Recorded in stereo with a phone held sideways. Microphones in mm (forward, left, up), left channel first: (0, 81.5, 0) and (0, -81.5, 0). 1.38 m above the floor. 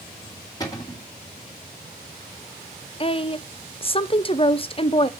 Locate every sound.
0.6 s a cupboard door: 25° left (ahead or behind), 1.7 m
3.0 s a woman speaking: 35° left (ahead or behind), 0.6 m